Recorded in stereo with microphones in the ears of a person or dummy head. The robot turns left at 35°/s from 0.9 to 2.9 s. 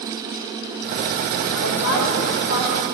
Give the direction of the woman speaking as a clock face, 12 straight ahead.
8 o'clock.